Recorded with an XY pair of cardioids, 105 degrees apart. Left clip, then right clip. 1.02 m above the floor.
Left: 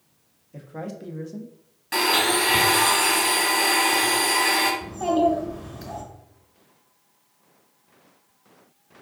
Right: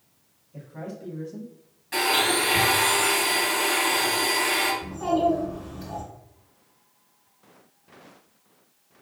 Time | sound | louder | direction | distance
0.5 | a man speaking | left 3 dB | 65° left | 1.0 m
1.9 | a blender | left 2 dB | 55° left | 1.6 m
4.8 | a child speaking | left 2 dB | 60° left | 1.5 m